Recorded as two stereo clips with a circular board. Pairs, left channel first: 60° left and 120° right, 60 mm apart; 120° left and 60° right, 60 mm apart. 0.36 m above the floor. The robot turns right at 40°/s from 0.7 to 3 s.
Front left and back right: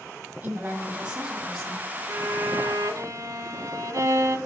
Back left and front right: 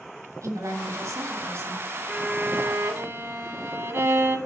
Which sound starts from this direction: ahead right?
A woman speaking, at 0.4 s.